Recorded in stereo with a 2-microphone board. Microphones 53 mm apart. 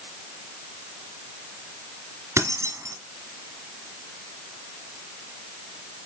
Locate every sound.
2.4 s keys jangling: 55° right (ahead or behind), 1.4 m